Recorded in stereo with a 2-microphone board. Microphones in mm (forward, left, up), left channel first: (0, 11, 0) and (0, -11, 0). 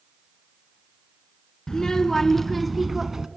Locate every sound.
1.7 s a child speaking: 25° left (ahead or behind), 1.3 m; by 3.3 s 20° right (ahead or behind), 1.0 m